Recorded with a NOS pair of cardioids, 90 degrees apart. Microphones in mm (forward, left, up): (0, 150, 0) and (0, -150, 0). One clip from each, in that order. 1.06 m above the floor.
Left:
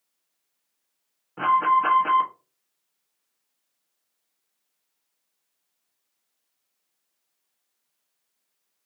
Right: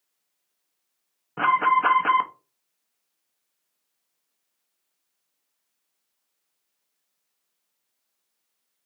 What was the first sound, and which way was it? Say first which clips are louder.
An alarm: even; 30° right.